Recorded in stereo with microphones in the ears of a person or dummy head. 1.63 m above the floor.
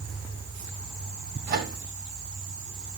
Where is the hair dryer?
I don't hear a hair dryer.